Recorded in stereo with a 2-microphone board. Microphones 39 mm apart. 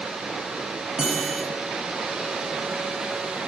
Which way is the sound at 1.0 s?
20° right (ahead or behind).